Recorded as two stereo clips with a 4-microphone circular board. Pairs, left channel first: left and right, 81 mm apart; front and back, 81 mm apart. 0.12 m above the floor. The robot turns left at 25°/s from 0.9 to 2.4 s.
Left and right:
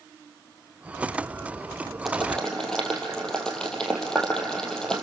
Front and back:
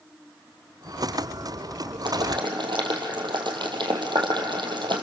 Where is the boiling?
Straight behind, 3 m; by 5.0 s 170° left, 3 m.